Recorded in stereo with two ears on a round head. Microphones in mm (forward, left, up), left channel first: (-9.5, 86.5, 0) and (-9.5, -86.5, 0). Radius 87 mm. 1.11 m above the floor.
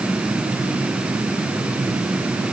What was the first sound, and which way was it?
Only background noise.